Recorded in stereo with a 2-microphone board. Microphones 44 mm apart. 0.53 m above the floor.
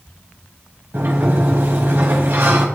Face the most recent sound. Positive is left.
turn(degrees=-55)  # may be behind; listen again after turning